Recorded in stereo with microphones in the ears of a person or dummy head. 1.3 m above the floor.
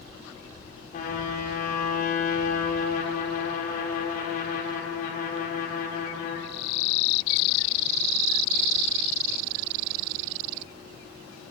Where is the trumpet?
45° left (ahead or behind), 4 m.